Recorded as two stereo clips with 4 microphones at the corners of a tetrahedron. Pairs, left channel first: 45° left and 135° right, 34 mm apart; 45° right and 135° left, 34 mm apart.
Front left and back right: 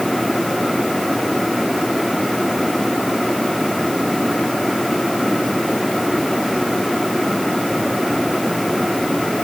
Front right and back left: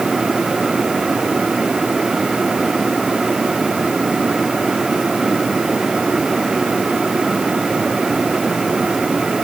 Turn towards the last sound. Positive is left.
No sound to turn to.